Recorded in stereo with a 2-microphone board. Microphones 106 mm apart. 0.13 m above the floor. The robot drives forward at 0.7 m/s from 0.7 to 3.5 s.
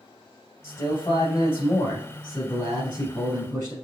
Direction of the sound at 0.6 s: 30° left (ahead or behind).